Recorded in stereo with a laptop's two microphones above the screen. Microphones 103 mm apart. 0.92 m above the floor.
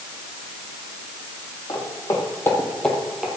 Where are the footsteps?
40° left (ahead or behind), 2.5 m; by 3.3 s 10° right (ahead or behind), 1.6 m.